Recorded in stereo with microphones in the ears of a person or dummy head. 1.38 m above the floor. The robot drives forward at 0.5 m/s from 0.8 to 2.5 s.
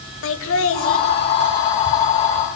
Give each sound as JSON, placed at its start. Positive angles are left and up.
{"t": 0.2, "sound": "laughter", "side_deg": 70, "distance_m": 2.5}